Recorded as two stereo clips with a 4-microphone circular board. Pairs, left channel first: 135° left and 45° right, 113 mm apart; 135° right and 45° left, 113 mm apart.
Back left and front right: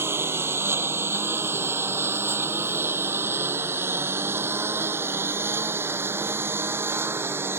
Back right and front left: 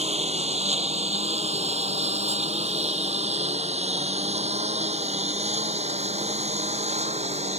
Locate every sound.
0.0 s a lawn mower: 25° left